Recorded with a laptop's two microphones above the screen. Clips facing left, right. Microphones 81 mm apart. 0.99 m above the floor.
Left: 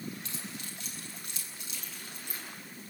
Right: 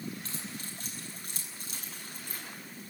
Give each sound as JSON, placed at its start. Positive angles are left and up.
{"t": 0.2, "sound": "keys jangling", "side_deg": -35, "distance_m": 8.5}